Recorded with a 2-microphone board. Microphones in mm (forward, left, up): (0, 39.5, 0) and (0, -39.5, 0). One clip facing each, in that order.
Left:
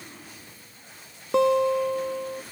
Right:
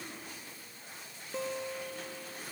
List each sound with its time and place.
1.3 s a guitar: 80° left